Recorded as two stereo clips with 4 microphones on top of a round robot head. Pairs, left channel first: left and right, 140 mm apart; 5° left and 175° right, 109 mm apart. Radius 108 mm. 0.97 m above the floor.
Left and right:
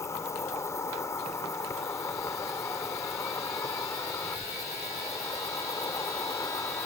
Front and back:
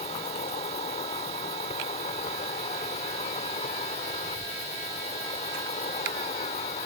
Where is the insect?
20° left.